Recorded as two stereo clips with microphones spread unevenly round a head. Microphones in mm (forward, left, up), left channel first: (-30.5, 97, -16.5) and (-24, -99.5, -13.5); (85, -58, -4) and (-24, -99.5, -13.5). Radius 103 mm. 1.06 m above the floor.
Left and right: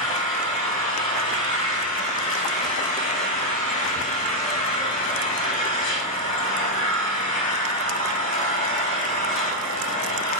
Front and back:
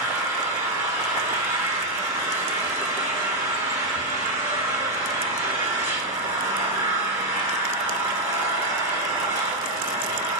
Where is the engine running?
140° left, 4 m.